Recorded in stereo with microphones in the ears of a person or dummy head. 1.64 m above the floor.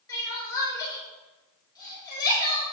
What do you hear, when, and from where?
0.1 s crying: 15° left (ahead or behind), 7 m